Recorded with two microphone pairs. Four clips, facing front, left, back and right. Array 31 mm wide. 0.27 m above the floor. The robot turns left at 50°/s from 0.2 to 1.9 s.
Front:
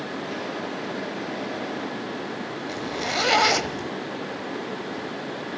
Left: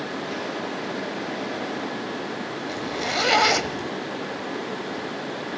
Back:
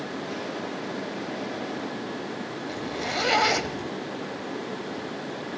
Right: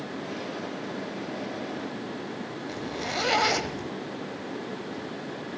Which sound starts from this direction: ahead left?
A zipper, at 2.7 s.